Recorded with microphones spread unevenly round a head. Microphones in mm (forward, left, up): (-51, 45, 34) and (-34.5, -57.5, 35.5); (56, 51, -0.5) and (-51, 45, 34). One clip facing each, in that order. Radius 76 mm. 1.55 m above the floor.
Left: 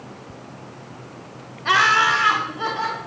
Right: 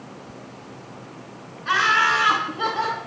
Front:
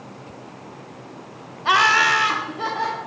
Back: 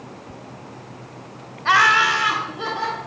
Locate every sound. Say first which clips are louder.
1.6 s laughter: left 2 dB, back 1 dB; 75° left, 0.8 m; by 3.0 s 40° right, 1.6 m